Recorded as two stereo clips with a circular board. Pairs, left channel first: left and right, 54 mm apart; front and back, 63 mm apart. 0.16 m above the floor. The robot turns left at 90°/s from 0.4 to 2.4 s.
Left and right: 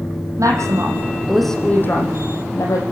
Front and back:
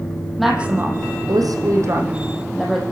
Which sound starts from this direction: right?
A woman speaking, at 0.4 s.